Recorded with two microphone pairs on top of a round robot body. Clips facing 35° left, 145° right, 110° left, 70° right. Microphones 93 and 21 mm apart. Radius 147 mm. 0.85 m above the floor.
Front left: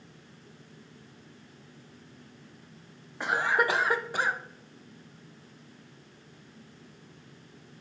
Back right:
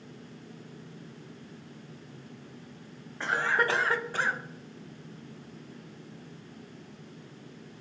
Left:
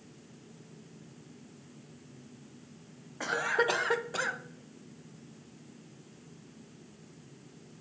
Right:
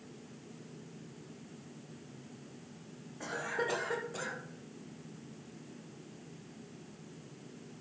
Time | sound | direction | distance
3.2 | a cough | 115° left | 1.2 m